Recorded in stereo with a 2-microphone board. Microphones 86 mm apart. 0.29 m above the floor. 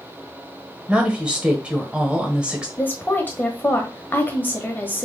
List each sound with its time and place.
0.9 s a woman speaking: 15° right (ahead or behind), 1.0 m
2.8 s a woman speaking: 20° left (ahead or behind), 1.1 m